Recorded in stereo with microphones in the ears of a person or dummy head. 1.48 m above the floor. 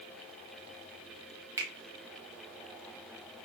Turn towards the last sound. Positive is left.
turn(degrees=-20)  # may be behind; listen again after turning